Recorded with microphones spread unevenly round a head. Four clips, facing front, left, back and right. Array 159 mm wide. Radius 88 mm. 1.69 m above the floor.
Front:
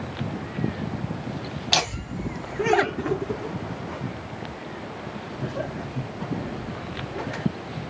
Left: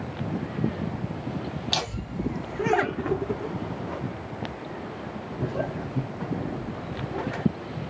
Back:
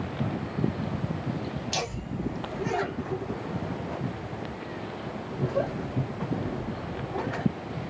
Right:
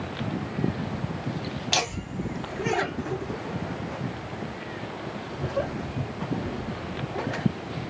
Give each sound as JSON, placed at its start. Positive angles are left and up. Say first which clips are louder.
{"t": 1.7, "sound": "laughter", "louder": "right 4 dB, front 4 dB", "azimuth_deg": -15, "distance_m": 1.1}